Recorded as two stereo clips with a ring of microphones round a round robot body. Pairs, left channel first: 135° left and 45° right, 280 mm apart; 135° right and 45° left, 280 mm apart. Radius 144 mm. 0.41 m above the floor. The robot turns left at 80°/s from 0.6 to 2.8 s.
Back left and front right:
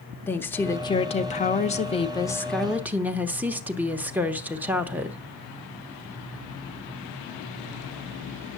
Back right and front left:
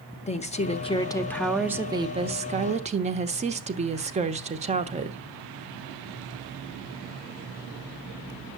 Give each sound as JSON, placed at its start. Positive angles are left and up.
{"t": 0.3, "sound": "a woman speaking", "azimuth_deg": -155, "distance_m": 1.0}